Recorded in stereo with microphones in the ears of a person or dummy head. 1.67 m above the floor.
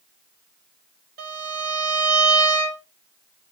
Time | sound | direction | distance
1.2 | a violin | 55° right (ahead or behind) | 1.3 m